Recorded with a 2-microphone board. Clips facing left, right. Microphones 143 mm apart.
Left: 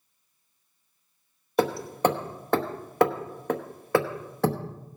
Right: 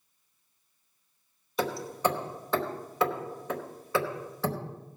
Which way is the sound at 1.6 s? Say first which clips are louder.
Left 5 dB; 60° left (ahead or behind).